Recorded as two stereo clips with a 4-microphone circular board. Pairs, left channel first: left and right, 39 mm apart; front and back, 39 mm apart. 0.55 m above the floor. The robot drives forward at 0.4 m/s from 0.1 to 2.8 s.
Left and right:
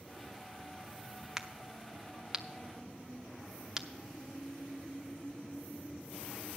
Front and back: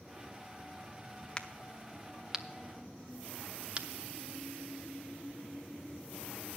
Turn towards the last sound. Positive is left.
turn(degrees=-155)